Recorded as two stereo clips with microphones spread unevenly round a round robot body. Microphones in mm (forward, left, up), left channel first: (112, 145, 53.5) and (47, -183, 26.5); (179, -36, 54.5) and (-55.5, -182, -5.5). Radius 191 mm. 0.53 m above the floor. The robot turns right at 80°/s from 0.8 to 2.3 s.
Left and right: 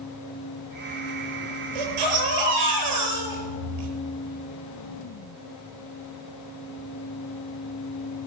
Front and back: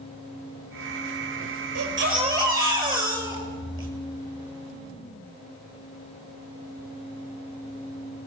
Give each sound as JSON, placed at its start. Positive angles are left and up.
{"t": 1.8, "sound": "a baby crying", "azimuth_deg": -115, "distance_m": 8.0}